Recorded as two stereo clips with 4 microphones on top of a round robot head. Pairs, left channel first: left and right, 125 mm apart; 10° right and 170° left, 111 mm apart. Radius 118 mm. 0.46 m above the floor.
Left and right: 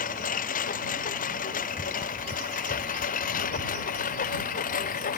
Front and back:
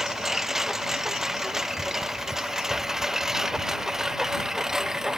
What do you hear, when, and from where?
0.0 s a lawn mower: 80° left; by 5.2 s 85° left